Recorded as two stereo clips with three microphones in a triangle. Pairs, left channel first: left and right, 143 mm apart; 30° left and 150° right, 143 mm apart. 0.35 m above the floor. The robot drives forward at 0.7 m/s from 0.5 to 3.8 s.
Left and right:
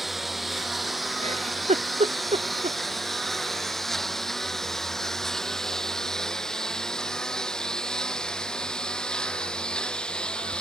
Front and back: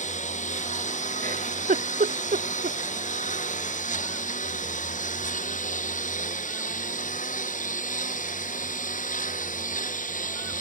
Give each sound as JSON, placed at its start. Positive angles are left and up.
{"t": 0.0, "sound": "a lawn mower", "azimuth_deg": 0}
{"t": 1.2, "sound": "a giggle", "azimuth_deg": -125}